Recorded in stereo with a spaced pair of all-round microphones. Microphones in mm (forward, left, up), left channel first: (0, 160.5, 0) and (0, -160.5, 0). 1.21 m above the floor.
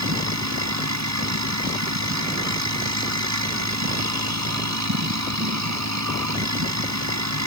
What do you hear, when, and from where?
0.0 s a machine running: 55° right (ahead or behind)